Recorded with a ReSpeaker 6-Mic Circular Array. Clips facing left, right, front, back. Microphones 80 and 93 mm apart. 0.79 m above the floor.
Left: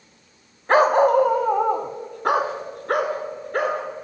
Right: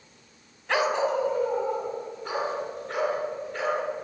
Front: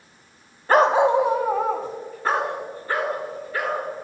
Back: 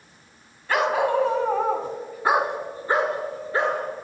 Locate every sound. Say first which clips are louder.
0.7 s a dog barking: left 9 dB, front 5 dB; 45° left, 1.3 m; by 3.8 s 120° left, 4 m